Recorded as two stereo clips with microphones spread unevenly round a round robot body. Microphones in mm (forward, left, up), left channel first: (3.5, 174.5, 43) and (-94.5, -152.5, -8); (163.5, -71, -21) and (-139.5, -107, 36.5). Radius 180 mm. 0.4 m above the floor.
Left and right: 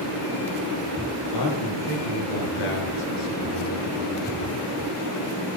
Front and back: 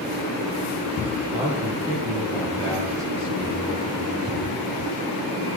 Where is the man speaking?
100° left, 7 m; by 4.7 s 65° left, 8 m.